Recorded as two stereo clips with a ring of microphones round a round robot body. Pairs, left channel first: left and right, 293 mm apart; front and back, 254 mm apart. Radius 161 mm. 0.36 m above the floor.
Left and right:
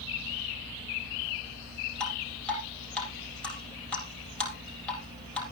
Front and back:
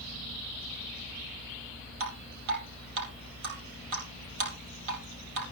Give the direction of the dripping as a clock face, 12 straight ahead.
6 o'clock.